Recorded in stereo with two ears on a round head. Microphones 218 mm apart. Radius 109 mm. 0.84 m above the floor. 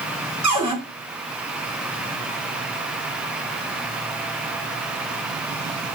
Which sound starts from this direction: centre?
A cupboard door, at 0.4 s.